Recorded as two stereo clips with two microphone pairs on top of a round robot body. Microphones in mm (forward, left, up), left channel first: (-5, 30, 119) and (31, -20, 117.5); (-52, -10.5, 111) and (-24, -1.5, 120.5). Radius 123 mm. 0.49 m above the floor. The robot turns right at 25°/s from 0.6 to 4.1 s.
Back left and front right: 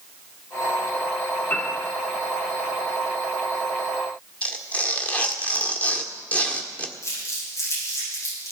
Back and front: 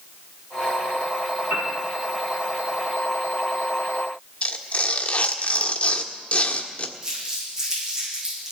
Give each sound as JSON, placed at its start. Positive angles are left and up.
{"t": 1.5, "sound": "a piano", "azimuth_deg": 65, "distance_m": 6.0}
{"t": 4.4, "sound": "tearing paper", "azimuth_deg": -170, "distance_m": 1.6}
{"t": 7.0, "sound": "crumpling", "azimuth_deg": 90, "distance_m": 9.5}